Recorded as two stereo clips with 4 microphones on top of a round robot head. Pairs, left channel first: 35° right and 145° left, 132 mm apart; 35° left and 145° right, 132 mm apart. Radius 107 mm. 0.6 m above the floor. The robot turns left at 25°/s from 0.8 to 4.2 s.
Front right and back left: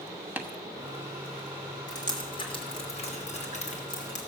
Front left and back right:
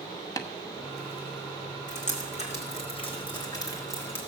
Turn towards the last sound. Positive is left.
turn(degrees=-35)